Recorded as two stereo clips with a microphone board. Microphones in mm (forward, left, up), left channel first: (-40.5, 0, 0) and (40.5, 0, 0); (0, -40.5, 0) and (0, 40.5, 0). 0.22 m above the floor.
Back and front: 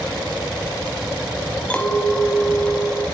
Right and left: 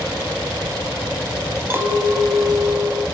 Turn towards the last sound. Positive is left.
turn(degrees=120)